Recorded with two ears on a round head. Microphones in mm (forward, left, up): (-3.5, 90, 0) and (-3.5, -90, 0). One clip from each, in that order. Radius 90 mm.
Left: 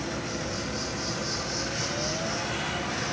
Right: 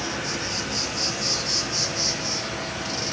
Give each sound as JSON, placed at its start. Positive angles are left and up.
{"t": 0.0, "sound": "an insect", "side_deg": -55, "distance_m": 5.0}